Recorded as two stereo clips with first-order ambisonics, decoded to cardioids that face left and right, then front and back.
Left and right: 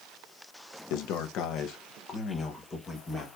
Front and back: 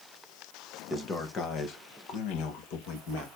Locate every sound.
0.9 s a man speaking: 75° left, 0.9 m; by 3.3 s 15° left, 1.7 m